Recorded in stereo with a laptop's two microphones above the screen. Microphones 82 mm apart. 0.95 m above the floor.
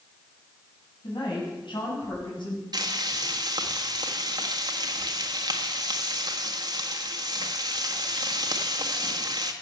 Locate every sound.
1.0 s a woman speaking: 65° left (ahead or behind), 6 m; by 2.6 s 75° left (ahead or behind), 6 m
2.7 s frying: 55° right (ahead or behind), 1.4 m